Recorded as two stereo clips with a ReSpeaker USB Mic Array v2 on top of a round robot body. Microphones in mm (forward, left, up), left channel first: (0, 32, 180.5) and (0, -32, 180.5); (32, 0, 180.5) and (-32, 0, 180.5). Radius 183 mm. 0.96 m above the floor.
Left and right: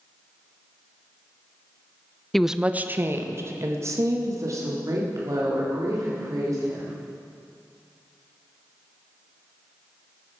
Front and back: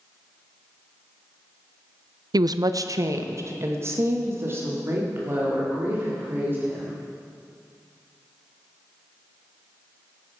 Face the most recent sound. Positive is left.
turn(degrees=-125)